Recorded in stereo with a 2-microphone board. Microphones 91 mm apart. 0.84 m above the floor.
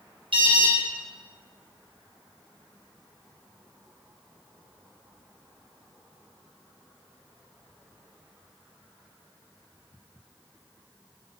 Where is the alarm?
70° right (ahead or behind), 4.5 m.